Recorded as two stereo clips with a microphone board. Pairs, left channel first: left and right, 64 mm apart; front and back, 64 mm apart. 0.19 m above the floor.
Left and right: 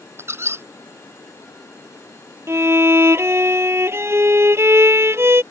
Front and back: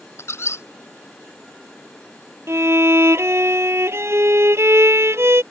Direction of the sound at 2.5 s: 135° right.